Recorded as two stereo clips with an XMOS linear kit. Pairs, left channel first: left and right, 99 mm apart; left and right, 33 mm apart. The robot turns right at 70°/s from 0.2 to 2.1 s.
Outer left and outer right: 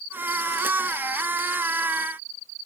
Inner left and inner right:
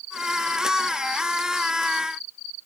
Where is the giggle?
I don't hear a giggle.